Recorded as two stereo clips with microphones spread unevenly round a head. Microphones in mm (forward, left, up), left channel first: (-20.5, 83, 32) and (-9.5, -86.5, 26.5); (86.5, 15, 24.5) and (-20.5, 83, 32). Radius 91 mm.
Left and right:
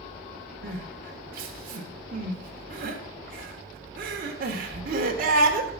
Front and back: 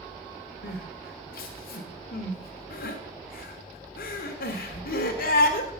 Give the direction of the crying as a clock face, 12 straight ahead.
1 o'clock.